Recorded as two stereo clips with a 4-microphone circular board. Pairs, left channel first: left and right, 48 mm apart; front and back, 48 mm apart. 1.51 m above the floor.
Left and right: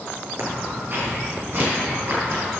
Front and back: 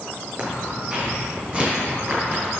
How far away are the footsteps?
About 3 m.